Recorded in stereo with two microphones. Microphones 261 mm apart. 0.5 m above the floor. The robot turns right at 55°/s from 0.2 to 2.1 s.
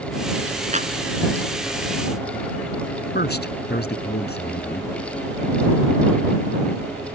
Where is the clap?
25° right (ahead or behind); by 0.9 s 35° right (ahead or behind).